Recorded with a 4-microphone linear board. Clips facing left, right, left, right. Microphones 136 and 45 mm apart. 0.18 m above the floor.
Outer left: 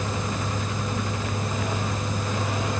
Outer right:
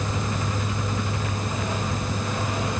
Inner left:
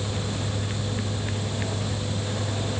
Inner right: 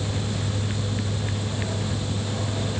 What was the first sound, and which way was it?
Only background noise.